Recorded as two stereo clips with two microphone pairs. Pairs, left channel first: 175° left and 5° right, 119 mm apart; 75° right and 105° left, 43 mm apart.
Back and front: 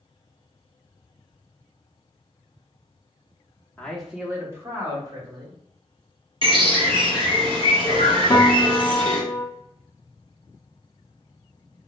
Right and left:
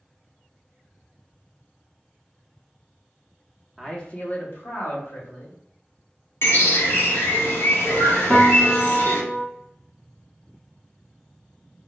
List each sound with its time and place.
3.8 s a man speaking: 135° right, 0.7 m; by 5.5 s 60° right, 2.0 m
6.4 s a bird: 50° right, 1.0 m
8.3 s a piano: 140° right, 0.9 m